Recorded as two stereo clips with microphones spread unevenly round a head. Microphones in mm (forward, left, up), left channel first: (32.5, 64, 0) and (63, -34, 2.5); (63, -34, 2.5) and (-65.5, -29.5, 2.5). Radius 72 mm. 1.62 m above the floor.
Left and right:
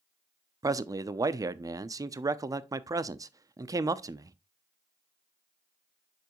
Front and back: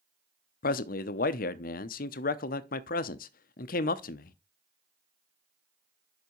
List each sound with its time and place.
0.6 s a man speaking: 15° right, 0.6 m